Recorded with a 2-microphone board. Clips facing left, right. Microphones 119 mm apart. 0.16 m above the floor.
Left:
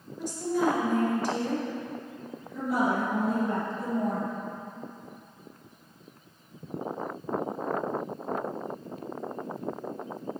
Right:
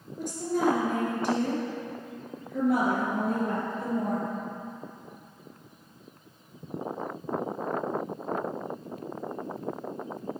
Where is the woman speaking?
50° right (ahead or behind), 2 m.